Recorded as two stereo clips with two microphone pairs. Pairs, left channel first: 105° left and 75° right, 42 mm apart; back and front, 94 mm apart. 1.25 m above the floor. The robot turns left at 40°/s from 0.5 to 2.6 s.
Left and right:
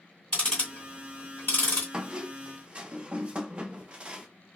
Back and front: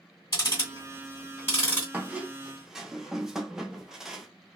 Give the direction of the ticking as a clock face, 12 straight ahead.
7 o'clock.